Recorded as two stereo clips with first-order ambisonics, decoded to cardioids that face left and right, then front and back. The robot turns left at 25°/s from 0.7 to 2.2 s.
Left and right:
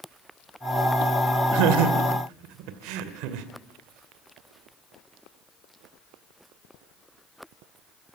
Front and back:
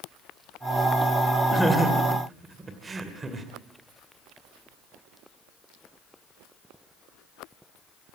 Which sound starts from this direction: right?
Laughter, at 1.5 s.